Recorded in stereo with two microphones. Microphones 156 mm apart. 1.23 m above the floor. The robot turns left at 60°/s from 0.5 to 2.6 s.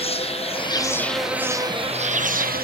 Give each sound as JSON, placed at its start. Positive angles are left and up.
{"t": 0.0, "sound": "an insect", "azimuth_deg": 40, "distance_m": 0.8}